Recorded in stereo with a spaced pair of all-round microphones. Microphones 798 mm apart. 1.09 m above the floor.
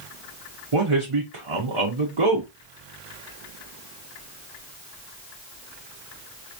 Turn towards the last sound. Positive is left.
turn(degrees=-40)  # may be behind; listen again after turning